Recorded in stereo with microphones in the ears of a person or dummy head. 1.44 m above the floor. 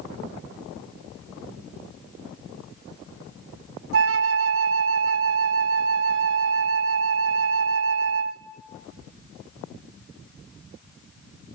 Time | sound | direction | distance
3.9 | a flute | 65° right (ahead or behind) | 0.8 m